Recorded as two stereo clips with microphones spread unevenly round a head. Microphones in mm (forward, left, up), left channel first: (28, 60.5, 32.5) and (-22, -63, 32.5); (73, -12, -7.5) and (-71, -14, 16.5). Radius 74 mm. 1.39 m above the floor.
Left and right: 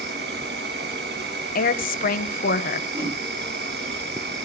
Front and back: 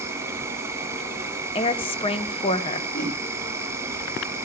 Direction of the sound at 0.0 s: 110° right.